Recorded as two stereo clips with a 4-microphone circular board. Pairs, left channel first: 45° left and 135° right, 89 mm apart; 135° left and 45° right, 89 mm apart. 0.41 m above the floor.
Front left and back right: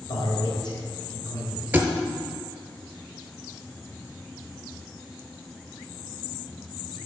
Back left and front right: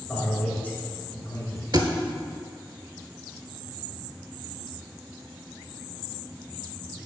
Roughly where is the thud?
Right.